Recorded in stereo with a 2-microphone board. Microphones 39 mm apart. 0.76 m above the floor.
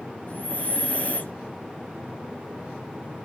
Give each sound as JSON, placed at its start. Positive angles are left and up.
{"t": 0.3, "sound": "breathing", "side_deg": 35, "distance_m": 0.9}